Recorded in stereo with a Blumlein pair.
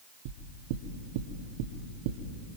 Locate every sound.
0.2 s knocking: 50° right, 2 m